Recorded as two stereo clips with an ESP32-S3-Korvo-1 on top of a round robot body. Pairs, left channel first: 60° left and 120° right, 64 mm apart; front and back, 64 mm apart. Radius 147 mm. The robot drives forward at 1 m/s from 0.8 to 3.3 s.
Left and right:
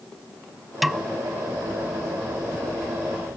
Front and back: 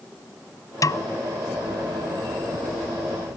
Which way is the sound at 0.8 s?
35° right.